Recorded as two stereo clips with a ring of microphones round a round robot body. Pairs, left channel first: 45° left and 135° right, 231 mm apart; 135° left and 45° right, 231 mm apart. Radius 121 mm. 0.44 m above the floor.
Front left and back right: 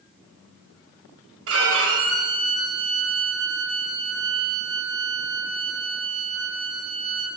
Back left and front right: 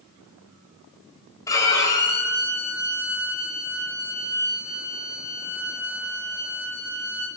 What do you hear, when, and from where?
1.5 s a violin: 150° right, 1.4 m